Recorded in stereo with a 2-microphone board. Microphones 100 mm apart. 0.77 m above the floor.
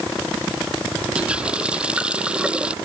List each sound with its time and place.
1.1 s a running tap: 10° right (ahead or behind)